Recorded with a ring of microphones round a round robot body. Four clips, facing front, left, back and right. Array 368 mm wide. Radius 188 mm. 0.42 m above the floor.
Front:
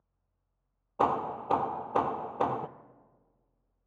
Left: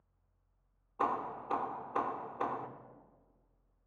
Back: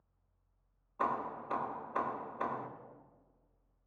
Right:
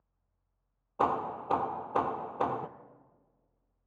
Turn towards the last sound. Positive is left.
turn(degrees=-30)